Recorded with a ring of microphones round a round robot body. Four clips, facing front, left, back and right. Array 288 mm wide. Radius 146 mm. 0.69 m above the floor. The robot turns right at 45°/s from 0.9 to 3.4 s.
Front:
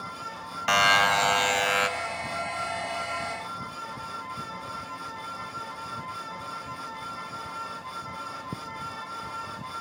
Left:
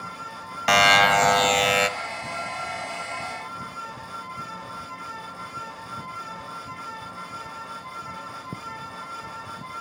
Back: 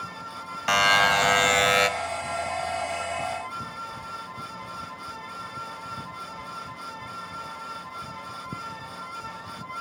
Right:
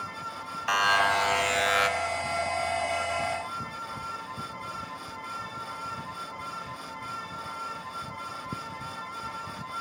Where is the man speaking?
I don't hear a man speaking.